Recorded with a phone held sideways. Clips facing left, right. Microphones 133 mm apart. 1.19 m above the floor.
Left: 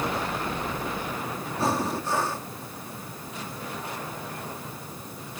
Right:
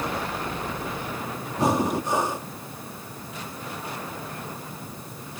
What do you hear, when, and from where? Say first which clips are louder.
1.6 s breathing: right 4 dB; 20° right (ahead or behind)